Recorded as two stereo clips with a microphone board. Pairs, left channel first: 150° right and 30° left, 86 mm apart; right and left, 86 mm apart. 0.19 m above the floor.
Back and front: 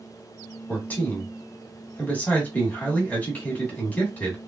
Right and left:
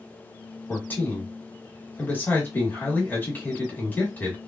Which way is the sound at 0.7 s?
110° right.